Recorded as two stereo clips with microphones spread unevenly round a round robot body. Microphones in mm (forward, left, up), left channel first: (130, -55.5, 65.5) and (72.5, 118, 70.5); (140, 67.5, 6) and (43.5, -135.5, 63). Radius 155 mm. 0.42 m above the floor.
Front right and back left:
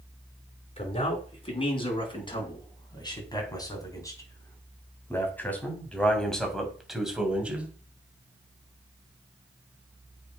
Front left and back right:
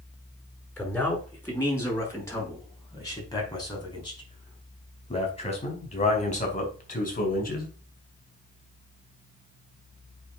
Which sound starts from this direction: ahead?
A man speaking, at 0.8 s.